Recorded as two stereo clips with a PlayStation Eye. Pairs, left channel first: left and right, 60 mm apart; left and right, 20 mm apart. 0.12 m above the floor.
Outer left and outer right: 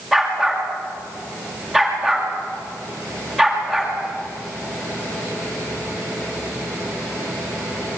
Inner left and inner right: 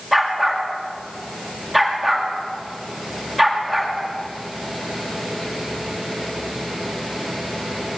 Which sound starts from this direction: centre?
A dog barking, at 0.1 s.